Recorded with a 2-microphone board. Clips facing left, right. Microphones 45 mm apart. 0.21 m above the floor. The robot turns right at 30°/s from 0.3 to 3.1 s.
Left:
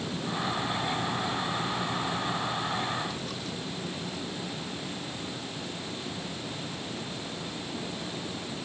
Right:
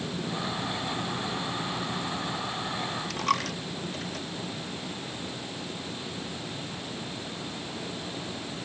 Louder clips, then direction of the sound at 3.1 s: Right 8 dB; 70° right (ahead or behind).